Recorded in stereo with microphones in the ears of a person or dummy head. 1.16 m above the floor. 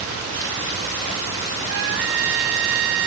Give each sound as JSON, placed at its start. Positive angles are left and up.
{"t": 1.7, "sound": "a trumpet", "side_deg": -80}